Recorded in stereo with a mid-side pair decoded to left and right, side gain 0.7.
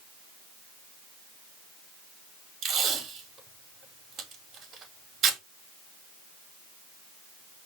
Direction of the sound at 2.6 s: 45° right.